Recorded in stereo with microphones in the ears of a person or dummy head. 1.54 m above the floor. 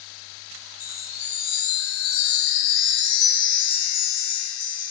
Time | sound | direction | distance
0.8 | a chime | 75° left (ahead or behind) | 1.3 m